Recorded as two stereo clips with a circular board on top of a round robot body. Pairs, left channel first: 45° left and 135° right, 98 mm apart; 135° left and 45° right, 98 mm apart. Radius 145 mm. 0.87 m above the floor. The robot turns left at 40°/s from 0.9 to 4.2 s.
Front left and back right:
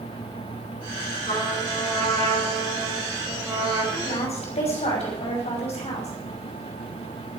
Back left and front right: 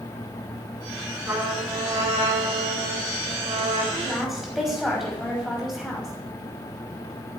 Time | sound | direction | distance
1.2 | a trumpet | 30° left | 9 m
3.9 | a woman speaking | 55° left | 5.5 m